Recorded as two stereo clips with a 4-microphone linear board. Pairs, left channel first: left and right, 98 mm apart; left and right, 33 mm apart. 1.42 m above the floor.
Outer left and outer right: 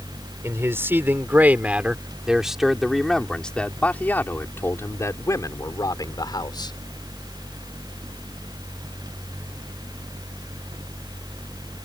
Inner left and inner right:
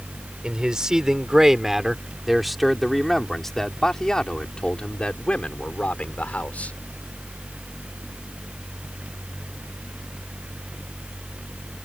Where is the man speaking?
25° right (ahead or behind); by 6.8 s 50° left (ahead or behind).